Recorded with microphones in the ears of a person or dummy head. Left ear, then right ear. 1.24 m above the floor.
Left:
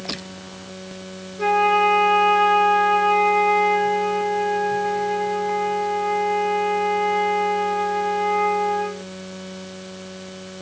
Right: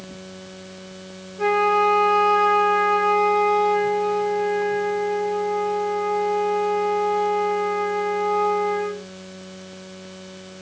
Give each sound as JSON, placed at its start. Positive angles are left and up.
{"t": 1.4, "sound": "a flute", "side_deg": -30, "distance_m": 2.0}